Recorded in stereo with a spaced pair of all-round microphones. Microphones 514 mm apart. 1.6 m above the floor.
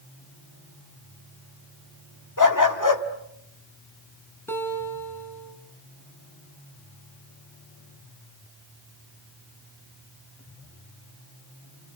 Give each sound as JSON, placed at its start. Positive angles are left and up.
{"t": 2.4, "sound": "a dog barking", "side_deg": 35, "distance_m": 1.4}
{"t": 4.5, "sound": "a guitar", "side_deg": 5, "distance_m": 3.5}